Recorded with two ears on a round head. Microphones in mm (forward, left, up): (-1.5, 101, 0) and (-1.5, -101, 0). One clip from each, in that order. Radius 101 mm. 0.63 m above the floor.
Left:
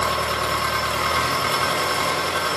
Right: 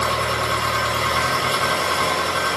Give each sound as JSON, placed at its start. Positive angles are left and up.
{"t": 0.0, "sound": "an engine running", "side_deg": 10, "distance_m": 1.1}